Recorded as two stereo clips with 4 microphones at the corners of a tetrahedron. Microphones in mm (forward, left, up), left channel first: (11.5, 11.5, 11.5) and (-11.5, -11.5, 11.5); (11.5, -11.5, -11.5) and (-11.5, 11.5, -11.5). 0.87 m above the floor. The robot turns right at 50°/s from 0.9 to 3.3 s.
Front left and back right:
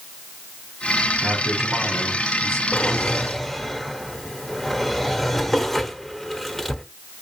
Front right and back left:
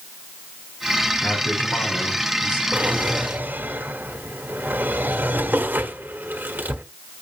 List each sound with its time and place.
1.2 s a man speaking: 90° right, 7 m; by 2.6 s 20° right, 7 m
2.7 s a drawer: 95° left, 1.4 m; by 6.8 s 125° left, 1.4 m